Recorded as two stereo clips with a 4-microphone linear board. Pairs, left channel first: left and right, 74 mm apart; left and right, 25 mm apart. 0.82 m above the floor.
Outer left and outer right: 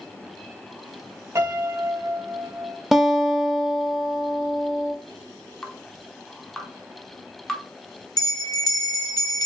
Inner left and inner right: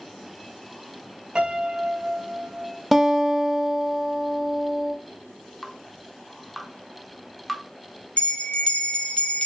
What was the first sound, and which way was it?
A piano, 35° right (ahead or behind).